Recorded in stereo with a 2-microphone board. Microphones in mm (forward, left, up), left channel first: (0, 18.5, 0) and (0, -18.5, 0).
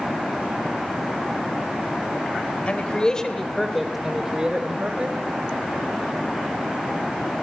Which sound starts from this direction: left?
A man speaking, at 2.7 s.